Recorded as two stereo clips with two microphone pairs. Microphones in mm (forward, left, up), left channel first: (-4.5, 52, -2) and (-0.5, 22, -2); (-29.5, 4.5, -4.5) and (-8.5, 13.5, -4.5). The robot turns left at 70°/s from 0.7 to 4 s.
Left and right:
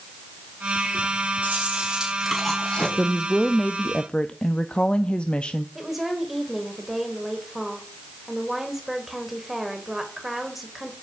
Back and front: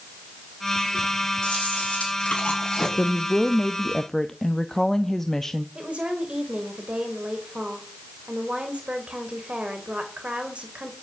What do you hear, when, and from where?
1.4 s chewing: 115° right, 6.5 m; by 2.9 s 145° left, 6.5 m
3.0 s a woman speaking: 150° right, 0.7 m; by 5.7 s 135° left, 0.7 m
5.8 s a woman speaking: straight ahead, 3 m